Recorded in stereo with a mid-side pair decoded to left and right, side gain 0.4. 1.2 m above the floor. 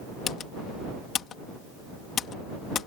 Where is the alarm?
I don't hear an alarm.